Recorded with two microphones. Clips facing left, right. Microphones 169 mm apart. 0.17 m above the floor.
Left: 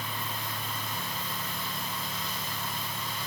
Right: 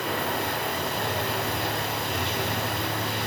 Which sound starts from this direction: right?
Running water, at 0.0 s.